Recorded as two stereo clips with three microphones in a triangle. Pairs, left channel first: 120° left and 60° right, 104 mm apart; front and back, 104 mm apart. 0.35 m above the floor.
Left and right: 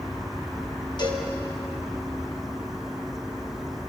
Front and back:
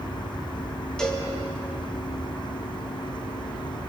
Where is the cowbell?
85° left, 3 m.